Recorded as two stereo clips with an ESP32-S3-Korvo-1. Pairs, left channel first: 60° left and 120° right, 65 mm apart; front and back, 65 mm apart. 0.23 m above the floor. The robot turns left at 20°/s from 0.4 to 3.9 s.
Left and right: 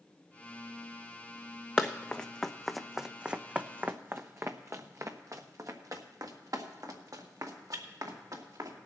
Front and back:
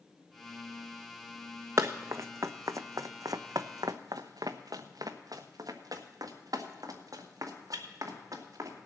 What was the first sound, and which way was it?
Running footsteps, 130° left.